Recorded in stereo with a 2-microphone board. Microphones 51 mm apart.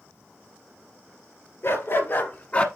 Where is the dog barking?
55° left (ahead or behind), 2 m; by 2.7 s 25° left (ahead or behind), 1.1 m.